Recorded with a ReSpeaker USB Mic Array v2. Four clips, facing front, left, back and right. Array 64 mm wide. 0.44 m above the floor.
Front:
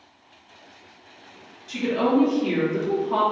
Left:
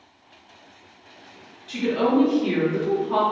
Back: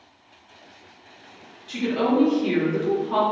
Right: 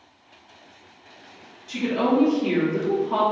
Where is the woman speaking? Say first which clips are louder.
Left 1 dB, front 1 dB; 130° left, 1.3 m.